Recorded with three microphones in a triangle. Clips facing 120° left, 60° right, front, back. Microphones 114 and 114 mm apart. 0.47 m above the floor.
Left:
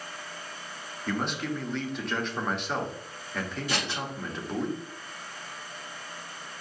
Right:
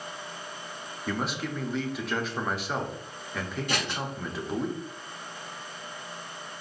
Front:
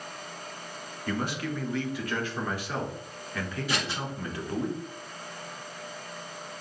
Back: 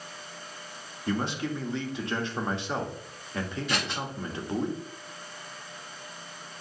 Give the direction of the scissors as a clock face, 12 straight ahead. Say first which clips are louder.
Right 1 dB, front 1 dB; 3 o'clock.